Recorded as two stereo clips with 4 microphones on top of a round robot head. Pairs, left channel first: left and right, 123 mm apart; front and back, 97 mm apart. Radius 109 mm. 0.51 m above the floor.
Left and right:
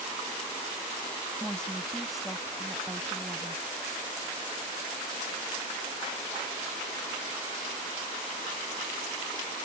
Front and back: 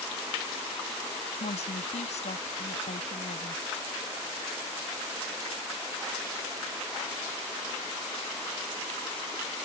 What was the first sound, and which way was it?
A woman speaking, 5° left.